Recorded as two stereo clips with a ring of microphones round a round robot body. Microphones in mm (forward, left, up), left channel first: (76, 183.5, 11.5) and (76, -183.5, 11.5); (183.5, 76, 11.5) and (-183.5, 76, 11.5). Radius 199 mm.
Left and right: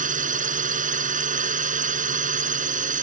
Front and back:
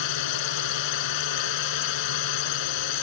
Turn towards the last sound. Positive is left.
turn(degrees=-20)